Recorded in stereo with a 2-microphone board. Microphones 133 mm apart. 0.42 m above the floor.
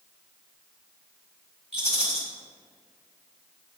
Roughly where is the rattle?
Right.